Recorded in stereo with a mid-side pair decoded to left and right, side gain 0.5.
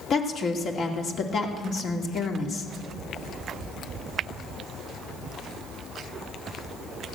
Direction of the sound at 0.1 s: 55° left.